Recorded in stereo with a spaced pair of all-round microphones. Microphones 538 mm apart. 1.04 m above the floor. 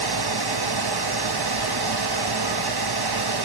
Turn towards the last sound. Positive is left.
turn(degrees=-45)  # may be behind; listen again after turning